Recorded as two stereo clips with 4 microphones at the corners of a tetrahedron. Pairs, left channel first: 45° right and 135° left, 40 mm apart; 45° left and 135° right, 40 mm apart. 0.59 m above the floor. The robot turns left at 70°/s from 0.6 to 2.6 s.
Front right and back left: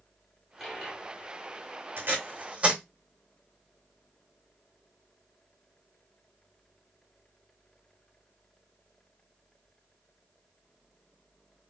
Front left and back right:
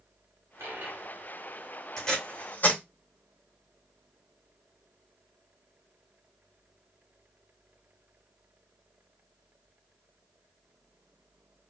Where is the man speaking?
No man speaking in this recording.